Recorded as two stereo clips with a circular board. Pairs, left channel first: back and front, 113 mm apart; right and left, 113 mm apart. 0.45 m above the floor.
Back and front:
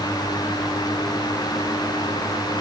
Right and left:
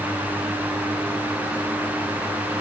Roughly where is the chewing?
I don't hear chewing.